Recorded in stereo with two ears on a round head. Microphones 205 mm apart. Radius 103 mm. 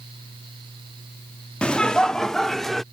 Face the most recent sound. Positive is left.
turn(degrees=0)  # may be behind; listen again after turning